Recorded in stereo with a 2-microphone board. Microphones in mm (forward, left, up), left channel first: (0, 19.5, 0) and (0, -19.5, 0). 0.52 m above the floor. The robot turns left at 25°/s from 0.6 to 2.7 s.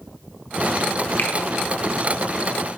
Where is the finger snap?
50° left (ahead or behind), 0.9 m.